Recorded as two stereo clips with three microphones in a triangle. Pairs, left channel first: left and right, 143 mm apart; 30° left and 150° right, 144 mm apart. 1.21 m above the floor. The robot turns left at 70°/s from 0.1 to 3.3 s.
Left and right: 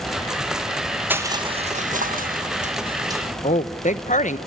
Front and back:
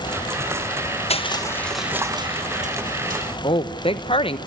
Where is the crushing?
15° right, 1.3 m; by 3.2 s 160° right, 1.3 m.